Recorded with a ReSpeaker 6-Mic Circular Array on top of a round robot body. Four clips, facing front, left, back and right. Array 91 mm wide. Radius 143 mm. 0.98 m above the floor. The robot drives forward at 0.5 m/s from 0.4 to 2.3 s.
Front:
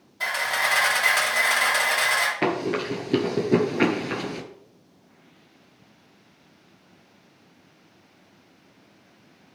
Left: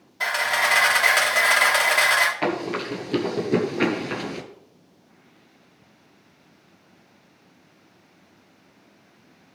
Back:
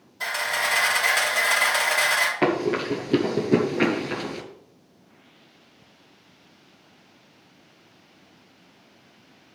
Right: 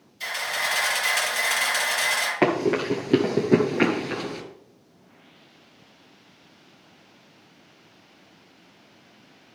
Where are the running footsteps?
105° right, 1.3 m; by 4.4 s 65° left, 0.9 m.